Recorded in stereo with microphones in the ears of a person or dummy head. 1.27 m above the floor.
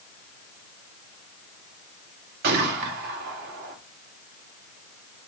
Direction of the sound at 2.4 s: 55° right (ahead or behind).